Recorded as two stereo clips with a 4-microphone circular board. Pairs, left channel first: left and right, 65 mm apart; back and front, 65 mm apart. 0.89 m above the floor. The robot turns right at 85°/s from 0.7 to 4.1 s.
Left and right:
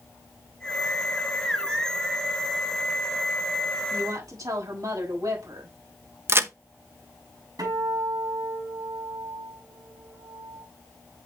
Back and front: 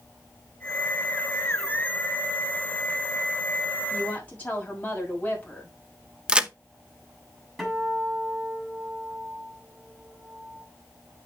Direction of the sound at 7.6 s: 95° right.